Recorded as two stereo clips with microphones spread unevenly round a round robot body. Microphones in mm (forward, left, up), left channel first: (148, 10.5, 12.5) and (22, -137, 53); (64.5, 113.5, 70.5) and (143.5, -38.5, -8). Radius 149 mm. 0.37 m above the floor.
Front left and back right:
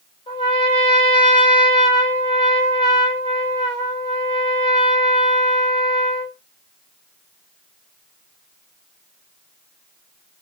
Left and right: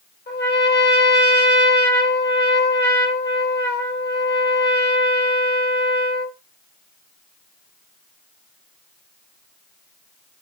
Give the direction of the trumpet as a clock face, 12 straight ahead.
9 o'clock.